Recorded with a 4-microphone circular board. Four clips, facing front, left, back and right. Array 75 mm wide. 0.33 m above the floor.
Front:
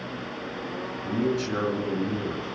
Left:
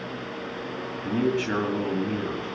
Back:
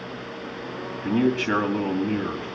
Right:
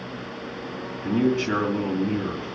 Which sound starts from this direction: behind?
A man speaking, at 1.0 s.